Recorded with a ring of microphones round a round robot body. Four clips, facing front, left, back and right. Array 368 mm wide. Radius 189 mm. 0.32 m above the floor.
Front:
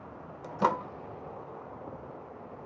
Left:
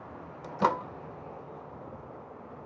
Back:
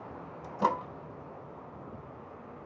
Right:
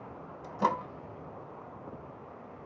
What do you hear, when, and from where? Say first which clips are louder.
0.4 s a microwave: left 2 dB, front 1 dB; 55° left, 0.6 m